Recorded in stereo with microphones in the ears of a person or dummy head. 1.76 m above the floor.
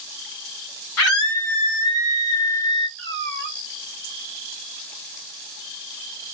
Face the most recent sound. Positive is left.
turn(degrees=60)  # may be behind; listen again after turning